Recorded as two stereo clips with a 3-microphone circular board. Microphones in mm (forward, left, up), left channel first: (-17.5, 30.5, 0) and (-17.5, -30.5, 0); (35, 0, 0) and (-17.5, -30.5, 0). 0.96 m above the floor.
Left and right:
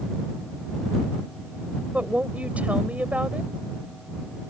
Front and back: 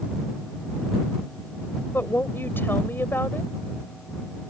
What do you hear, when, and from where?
1.9 s a woman speaking: 25° right